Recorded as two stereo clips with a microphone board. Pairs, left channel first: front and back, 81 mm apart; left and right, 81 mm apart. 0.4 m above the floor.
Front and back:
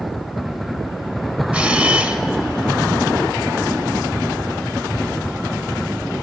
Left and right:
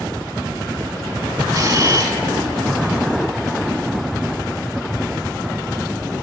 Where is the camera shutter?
110° right, 1.3 m.